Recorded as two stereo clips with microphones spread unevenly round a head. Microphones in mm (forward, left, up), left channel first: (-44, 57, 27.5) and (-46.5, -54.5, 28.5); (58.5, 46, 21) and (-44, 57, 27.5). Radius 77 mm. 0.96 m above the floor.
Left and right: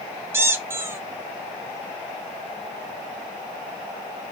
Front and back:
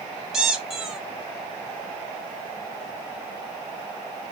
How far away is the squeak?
About 0.7 m.